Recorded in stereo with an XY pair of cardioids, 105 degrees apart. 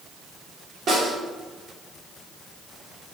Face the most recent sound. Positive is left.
turn(degrees=-55)